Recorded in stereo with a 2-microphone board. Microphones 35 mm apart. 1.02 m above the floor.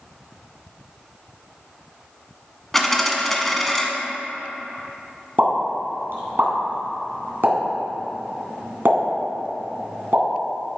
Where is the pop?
65° right (ahead or behind), 2.5 m.